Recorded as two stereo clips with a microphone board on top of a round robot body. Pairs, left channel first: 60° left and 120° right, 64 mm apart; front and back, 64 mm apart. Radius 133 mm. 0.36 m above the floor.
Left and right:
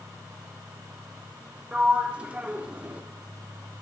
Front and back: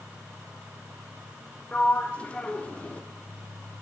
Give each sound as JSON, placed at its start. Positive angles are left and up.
{"t": 1.7, "sound": "a sliding door", "azimuth_deg": -60, "distance_m": 1.3}